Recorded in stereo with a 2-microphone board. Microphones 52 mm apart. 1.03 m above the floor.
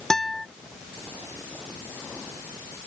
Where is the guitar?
5° left (ahead or behind).